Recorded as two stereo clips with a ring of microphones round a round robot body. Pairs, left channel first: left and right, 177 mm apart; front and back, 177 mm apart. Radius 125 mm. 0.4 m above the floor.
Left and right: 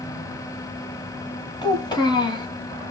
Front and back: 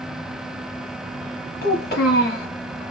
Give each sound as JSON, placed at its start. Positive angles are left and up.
{"t": 1.6, "sound": "a child speaking", "azimuth_deg": 25, "distance_m": 1.8}